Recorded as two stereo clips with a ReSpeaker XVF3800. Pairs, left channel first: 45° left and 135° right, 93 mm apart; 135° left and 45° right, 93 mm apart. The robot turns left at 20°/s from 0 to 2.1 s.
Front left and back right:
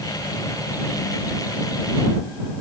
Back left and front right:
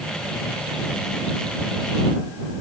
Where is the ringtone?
No ringtone in this recording.